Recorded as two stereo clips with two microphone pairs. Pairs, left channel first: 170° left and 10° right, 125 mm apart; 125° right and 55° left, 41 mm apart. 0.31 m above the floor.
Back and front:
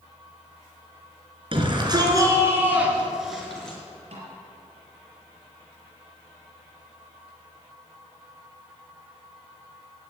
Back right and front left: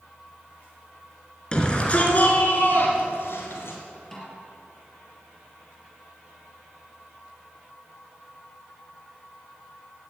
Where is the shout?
55° right, 3.5 m; by 3.8 s 110° right, 4.5 m.